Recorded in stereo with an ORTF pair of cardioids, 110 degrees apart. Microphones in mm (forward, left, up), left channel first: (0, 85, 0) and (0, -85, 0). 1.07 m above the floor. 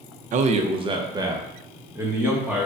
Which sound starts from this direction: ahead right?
A man speaking, at 0.3 s.